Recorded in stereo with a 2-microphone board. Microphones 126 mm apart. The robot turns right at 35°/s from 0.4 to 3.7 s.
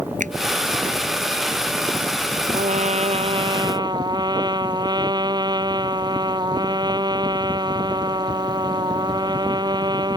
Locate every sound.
0.2 s a finger snap: 85° right
2.5 s a trumpet: 75° right; by 10.2 s 35° right